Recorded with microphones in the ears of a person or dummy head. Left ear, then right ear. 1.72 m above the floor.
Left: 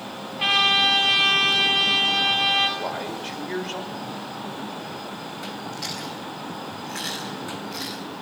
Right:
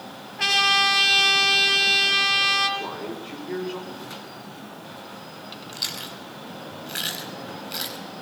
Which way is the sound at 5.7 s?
45° right (ahead or behind).